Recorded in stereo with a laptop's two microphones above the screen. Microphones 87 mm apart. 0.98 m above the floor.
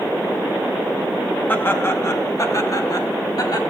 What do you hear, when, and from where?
1.5 s laughter: 25° left (ahead or behind), 1.7 m; by 3.6 s 55° left (ahead or behind), 3 m